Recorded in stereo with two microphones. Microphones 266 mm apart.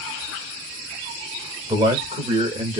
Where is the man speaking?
15° right (ahead or behind), 1.5 m; by 2.8 s 25° right (ahead or behind), 1.5 m.